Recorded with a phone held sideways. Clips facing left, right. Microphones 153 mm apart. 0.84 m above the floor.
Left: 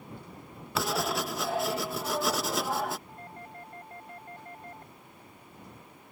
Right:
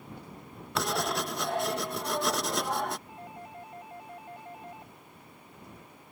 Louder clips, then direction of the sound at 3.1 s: Right 1 dB; 10° right (ahead or behind).